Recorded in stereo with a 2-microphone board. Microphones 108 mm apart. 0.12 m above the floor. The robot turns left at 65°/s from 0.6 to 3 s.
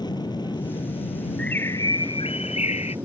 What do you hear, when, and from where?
0.0 s an aircraft: 135° left; by 3.0 s 25° right
1.4 s a bird: 175° left; by 3.0 s 70° left